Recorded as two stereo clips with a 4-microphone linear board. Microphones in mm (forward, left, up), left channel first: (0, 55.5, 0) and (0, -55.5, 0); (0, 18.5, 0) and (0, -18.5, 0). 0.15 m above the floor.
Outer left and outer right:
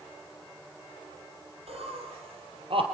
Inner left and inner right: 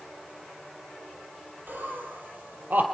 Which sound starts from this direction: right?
Laughter, at 1.7 s.